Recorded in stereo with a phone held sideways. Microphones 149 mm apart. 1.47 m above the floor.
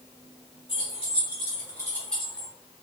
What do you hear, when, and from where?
0.7 s keys jangling: 45° left (ahead or behind), 2.0 m; by 2.5 s 10° right (ahead or behind), 1.1 m